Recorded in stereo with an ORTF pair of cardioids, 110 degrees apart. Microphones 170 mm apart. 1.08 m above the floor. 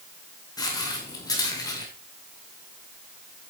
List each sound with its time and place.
0.6 s footsteps: 20° left, 5 m